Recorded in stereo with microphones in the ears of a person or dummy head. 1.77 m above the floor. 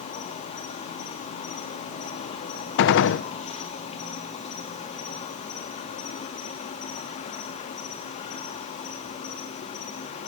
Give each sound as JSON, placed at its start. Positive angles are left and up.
{"t": 0.0, "sound": "an insect", "side_deg": 40, "distance_m": 2.5}
{"t": 2.8, "sound": "a gunshot", "side_deg": 65, "distance_m": 1.1}